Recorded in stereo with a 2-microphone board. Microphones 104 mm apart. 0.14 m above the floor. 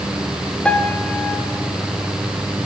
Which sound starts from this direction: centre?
A piano, at 0.7 s.